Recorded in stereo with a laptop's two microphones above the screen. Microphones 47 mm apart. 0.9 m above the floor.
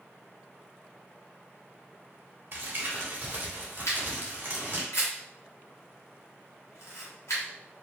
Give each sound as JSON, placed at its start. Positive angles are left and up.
{"t": 2.5, "sound": "crumpling", "side_deg": -45, "distance_m": 1.3}
{"t": 3.9, "sound": "a camera shutter", "side_deg": 75, "distance_m": 1.1}